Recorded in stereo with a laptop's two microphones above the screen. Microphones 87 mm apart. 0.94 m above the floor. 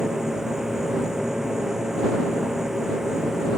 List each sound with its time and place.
0.0 s a machine running: 5° right (ahead or behind)